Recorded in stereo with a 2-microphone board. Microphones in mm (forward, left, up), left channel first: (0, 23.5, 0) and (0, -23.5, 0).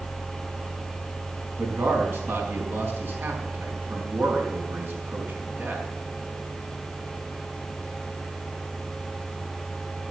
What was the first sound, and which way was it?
A man speaking, 55° right (ahead or behind).